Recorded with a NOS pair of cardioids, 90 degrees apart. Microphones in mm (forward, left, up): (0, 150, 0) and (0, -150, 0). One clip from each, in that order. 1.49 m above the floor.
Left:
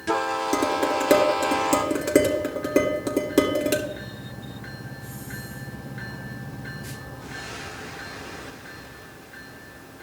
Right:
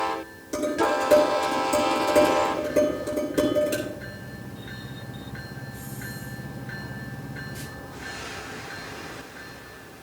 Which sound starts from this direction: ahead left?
Dishes clattering, at 0.5 s.